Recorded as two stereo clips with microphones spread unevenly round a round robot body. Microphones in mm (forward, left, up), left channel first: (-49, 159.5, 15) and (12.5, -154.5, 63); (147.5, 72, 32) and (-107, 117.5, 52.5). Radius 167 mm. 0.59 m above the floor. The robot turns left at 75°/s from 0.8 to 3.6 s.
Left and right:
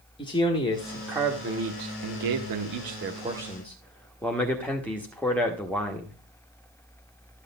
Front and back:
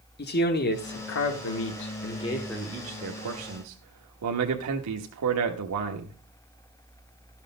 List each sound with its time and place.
0.2 s a man speaking: 30° left, 1.2 m; by 6.2 s straight behind, 1.2 m